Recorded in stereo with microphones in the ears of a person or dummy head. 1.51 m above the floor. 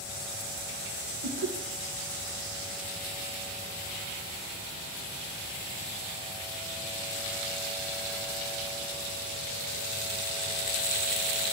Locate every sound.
1.2 s laughter: 80° right, 1.3 m